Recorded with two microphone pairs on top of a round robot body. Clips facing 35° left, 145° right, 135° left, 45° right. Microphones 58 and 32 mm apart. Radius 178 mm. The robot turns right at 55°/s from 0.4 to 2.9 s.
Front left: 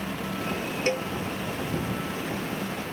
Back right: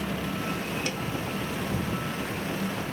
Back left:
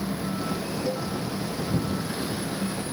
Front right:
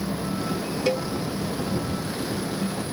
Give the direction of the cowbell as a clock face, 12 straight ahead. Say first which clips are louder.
Front left 5 dB, front right 7 dB; 1 o'clock.